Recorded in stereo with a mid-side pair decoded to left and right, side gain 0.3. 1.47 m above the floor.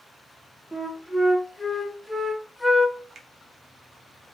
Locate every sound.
0.7 s a flute: 10° left, 1.0 m
3.1 s a finger snap: 65° right, 0.8 m